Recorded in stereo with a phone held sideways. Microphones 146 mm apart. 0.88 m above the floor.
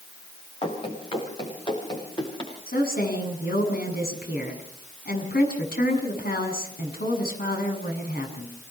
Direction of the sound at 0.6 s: 40° left (ahead or behind).